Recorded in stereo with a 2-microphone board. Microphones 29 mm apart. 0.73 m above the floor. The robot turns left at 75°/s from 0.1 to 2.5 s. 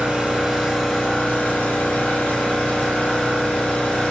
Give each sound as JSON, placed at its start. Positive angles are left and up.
{"t": 0.0, "sound": "an engine running", "azimuth_deg": -130, "distance_m": 1.6}